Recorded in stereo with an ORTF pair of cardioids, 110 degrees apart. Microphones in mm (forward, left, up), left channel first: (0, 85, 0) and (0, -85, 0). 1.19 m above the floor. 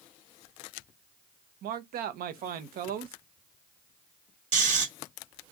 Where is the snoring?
55° right, 1.5 m.